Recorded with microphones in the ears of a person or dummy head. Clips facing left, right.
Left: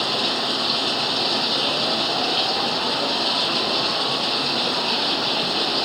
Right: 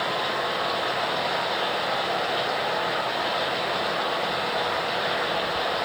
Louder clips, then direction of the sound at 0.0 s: Left 2 dB; 75° left (ahead or behind).